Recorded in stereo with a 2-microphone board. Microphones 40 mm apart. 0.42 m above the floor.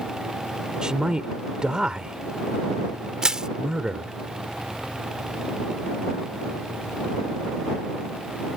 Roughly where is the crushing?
Centre.